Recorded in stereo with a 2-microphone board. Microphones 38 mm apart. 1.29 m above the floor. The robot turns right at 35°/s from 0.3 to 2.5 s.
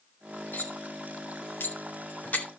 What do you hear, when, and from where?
0.5 s cutlery clinking: 65° left (ahead or behind), 2.5 m; by 2.5 s 45° left (ahead or behind), 2.5 m